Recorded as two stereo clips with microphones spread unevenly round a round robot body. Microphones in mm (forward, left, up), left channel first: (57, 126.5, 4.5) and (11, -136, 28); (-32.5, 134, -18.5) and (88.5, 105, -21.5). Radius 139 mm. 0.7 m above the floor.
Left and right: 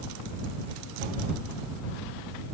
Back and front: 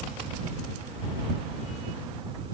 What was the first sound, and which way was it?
Only background noise.